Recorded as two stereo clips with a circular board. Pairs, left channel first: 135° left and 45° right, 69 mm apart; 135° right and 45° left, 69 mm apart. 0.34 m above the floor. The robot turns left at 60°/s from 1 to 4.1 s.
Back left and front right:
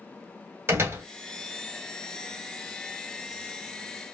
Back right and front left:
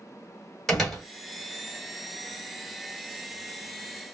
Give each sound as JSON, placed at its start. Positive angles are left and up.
{"t": 0.7, "sound": "a door slam", "azimuth_deg": -50, "distance_m": 1.1}